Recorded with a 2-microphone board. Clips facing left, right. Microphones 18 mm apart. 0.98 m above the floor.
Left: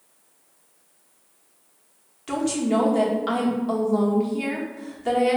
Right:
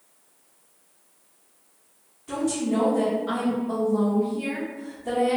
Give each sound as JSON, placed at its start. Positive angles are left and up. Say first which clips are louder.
{"t": 2.3, "sound": "a woman speaking", "louder": "left 2 dB", "side_deg": 60, "distance_m": 1.0}